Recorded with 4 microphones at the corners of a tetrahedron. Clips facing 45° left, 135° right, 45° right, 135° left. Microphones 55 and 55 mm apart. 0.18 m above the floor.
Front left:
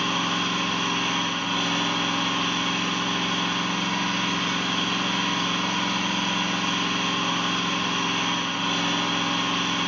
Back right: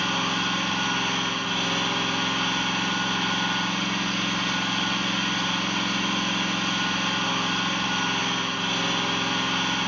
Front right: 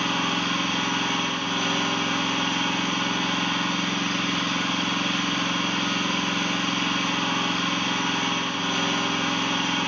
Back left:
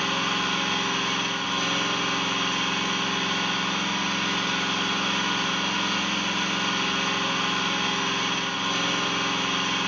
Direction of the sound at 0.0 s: 15° right.